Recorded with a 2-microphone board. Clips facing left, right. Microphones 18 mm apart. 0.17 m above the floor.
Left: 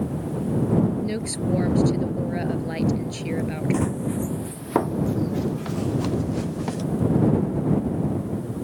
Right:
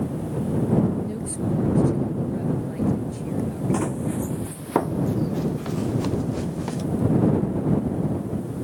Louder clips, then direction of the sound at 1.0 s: Left 2 dB; 55° left (ahead or behind).